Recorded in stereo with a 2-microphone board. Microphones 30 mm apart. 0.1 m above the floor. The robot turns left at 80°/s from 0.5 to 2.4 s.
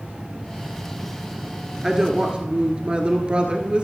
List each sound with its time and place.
1.8 s a woman speaking: 20° right, 1.4 m; by 3.8 s 65° right, 1.4 m